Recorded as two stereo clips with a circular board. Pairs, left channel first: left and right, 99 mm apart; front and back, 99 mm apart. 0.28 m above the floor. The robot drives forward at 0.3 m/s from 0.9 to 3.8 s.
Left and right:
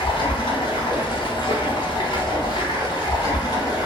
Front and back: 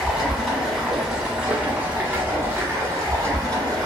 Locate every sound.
0.0 s running water: 90° left, 1.0 m; by 3.9 s 135° left, 1.4 m